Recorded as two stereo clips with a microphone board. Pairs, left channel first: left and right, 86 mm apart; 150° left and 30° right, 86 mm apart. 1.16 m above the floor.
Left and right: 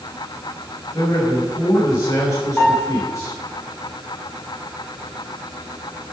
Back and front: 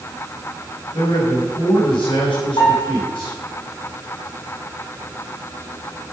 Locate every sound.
0.9 s a man speaking: 145° left, 6 m
2.6 s a piano: 165° left, 6.5 m